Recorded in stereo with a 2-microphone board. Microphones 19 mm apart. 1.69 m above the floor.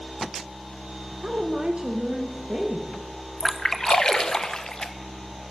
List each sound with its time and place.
1.2 s a woman speaking: 55° right (ahead or behind), 1.2 m; by 2.9 s 45° right (ahead or behind), 2.0 m
3.4 s a splash: 30° left (ahead or behind), 0.8 m